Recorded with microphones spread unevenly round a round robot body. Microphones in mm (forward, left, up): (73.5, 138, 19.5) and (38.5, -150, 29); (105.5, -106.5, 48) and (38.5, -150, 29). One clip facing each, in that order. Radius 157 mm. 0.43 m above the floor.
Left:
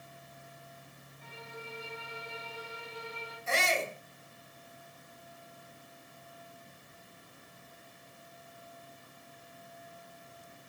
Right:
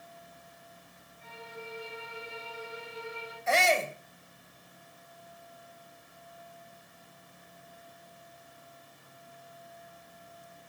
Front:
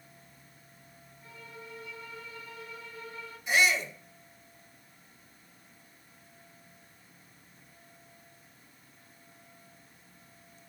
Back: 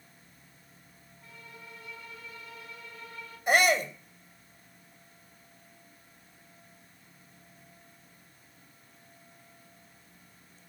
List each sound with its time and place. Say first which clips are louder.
1.2 s a violin: right 2 dB, front 2 dB; 140° left, 8 m
3.5 s a shout: right 5 dB, back 3 dB; 125° right, 2.5 m